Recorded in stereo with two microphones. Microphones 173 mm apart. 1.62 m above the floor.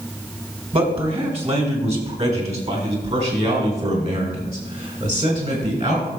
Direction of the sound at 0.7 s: 35° right (ahead or behind).